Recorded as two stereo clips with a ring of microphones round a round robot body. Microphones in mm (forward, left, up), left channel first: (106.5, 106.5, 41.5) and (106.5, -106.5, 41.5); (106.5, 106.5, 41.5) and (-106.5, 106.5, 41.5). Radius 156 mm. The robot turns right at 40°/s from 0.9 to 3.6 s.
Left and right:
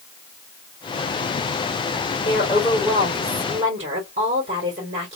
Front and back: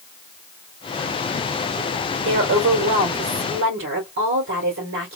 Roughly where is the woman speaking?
Behind left.